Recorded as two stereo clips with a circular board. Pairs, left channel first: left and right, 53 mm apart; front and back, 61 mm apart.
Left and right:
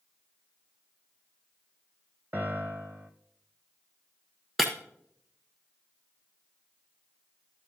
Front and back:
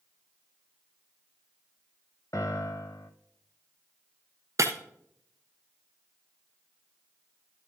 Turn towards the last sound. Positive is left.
turn(degrees=-175)